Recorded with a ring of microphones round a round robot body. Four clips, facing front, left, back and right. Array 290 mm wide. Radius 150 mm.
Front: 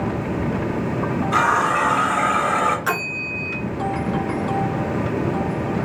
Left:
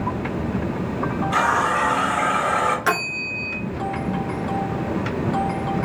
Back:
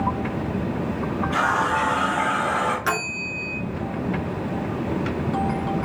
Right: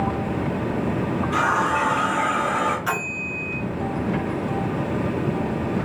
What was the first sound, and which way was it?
A running tap, 20° left.